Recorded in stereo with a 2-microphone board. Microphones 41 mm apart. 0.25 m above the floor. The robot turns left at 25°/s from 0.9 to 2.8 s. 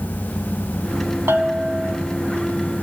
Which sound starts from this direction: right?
A bell, at 1.3 s.